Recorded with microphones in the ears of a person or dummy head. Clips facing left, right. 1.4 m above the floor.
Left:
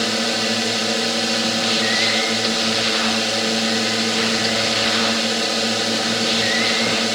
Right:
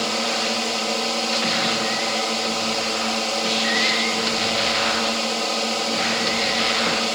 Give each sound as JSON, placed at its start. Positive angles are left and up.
{"t": 0.0, "sound": "a drone", "side_deg": 20}